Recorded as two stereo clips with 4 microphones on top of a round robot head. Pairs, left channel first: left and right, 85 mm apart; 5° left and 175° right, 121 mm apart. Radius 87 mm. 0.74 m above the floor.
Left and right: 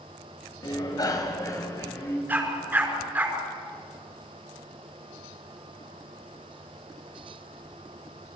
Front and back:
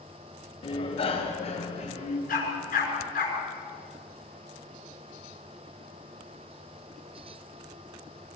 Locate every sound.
0.6 s a bicycle bell: 50° left, 2.5 m; by 2.2 s 35° left, 4 m
2.3 s a dog barking: 20° right, 5 m